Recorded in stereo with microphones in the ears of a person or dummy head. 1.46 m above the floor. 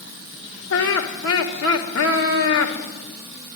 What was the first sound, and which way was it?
Laughter, 90° left.